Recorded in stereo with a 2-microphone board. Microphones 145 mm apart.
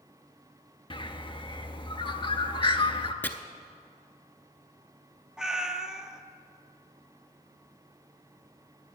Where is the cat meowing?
5° right (ahead or behind), 0.6 m.